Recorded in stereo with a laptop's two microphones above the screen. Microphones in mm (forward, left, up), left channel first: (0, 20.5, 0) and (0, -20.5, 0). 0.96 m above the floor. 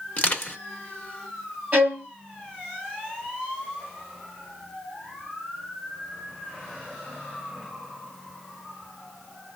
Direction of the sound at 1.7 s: 35° right (ahead or behind).